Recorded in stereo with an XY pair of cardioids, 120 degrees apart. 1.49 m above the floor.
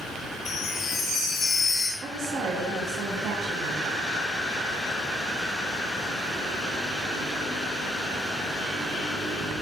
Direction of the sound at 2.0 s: 50° right.